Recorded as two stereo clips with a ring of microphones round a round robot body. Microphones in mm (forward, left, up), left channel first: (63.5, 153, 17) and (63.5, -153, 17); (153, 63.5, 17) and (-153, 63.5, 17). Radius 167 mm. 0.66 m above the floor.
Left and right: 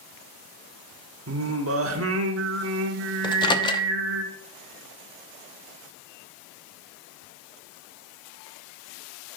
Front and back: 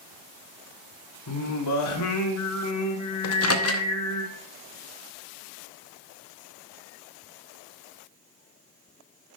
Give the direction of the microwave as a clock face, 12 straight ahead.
11 o'clock.